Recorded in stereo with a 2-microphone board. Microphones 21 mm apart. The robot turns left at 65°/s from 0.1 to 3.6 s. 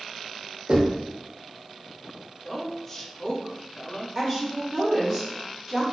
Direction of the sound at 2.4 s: 10° right (ahead or behind).